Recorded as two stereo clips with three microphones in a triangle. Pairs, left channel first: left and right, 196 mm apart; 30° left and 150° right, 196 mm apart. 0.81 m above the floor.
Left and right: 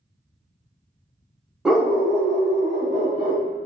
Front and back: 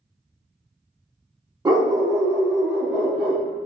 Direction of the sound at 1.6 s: 170° right.